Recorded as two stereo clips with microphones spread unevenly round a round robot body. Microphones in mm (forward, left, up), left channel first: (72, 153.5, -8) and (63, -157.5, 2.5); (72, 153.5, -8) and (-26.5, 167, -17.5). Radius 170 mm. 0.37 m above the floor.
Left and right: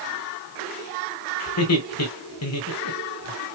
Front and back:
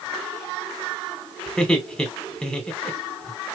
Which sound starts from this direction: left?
Laughter, at 1.5 s.